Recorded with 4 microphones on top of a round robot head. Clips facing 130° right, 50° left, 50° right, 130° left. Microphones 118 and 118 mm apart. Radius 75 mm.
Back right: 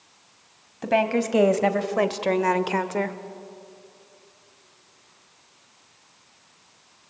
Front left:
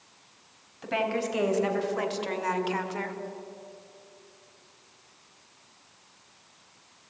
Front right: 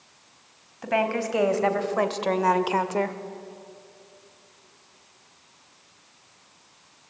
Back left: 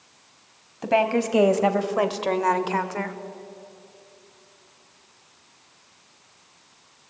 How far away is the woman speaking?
About 3 m.